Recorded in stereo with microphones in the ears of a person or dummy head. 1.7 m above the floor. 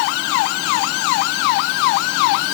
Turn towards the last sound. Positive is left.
No sound to turn to.